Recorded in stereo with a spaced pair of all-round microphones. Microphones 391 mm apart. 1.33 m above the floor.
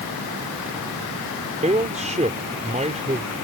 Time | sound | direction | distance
1.6 | a man speaking | 20° right (ahead or behind) | ?